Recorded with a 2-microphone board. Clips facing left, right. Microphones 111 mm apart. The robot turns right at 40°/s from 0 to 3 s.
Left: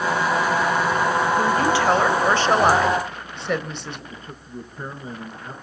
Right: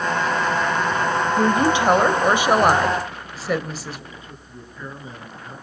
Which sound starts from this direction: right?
A woman speaking, at 1.4 s.